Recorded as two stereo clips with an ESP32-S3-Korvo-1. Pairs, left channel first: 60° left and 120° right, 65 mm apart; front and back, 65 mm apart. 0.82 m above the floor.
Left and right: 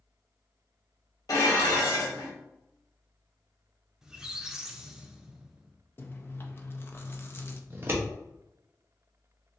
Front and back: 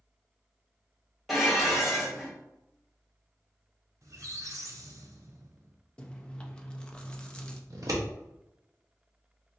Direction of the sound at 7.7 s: 170° right.